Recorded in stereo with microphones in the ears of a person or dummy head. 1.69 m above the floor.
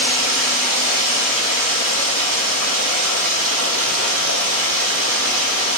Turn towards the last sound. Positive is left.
turn(degrees=-70)  # may be behind; listen again after turning